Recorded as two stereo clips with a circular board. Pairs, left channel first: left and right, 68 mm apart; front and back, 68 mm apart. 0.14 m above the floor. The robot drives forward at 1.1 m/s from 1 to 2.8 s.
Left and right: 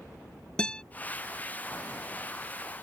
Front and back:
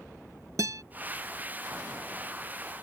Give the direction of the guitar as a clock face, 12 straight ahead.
7 o'clock.